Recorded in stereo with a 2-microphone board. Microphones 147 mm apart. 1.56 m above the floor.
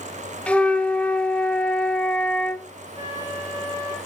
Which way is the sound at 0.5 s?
10° left (ahead or behind).